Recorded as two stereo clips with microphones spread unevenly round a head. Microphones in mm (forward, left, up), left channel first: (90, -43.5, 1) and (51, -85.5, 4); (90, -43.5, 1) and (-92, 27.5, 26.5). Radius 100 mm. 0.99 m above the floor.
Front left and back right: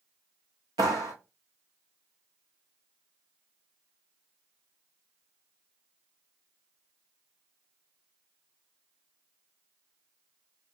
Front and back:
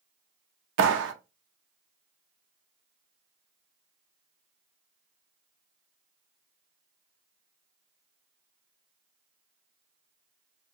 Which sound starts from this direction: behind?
A clap, at 0.8 s.